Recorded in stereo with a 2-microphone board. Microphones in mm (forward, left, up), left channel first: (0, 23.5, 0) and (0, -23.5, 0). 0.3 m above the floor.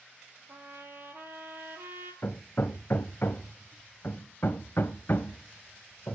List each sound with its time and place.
0.5 s a trumpet: 50° right (ahead or behind), 2 m
2.2 s hammering: 50° left (ahead or behind), 0.5 m